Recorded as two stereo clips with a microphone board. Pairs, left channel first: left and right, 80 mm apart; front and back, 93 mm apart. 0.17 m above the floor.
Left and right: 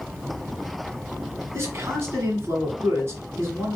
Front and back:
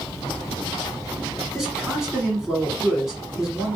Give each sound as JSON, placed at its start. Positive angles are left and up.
{"t": 1.5, "sound": "a man speaking", "azimuth_deg": -95, "distance_m": 1.3}